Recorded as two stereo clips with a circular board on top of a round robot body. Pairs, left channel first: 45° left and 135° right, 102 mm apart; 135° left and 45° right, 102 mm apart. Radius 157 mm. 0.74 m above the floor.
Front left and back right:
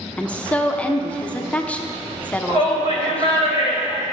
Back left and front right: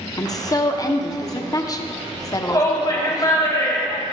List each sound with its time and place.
0.2 s a woman speaking: 115° left, 0.8 m
2.5 s a shout: 170° right, 2.5 m